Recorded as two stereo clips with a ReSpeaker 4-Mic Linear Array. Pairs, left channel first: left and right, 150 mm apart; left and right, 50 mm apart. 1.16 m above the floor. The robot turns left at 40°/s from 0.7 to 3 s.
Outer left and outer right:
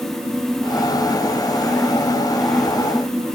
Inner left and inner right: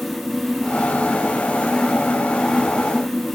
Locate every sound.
Only background noise.